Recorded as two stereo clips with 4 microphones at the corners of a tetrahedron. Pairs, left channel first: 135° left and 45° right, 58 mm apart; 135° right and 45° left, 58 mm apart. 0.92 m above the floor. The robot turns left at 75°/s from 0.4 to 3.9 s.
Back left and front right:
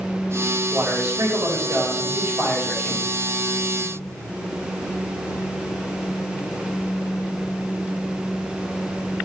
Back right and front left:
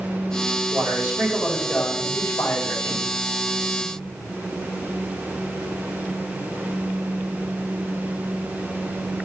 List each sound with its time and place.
0.7 s a man speaking: 15° left, 4 m; by 3.0 s 160° right, 4 m